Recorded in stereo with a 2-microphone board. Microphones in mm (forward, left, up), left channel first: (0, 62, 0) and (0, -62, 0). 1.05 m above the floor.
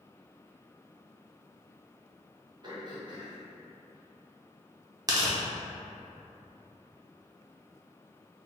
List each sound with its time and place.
2.6 s throat clearing: 35° right (ahead or behind), 0.8 m
5.1 s tearing paper: 30° right (ahead or behind), 0.7 m